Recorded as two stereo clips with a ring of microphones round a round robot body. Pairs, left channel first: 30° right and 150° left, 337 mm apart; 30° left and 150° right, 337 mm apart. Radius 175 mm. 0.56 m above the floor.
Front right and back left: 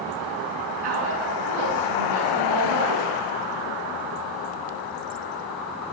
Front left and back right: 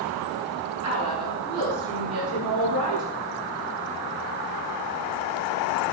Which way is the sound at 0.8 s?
165° left.